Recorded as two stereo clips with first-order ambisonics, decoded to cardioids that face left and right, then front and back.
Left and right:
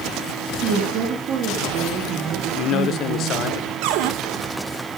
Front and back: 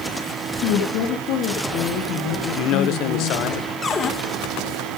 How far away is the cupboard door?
About 1.6 m.